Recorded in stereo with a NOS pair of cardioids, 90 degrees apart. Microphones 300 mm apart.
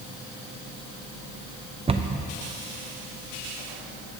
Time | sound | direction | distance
1.9 | a cupboard door | 20° right | 0.5 m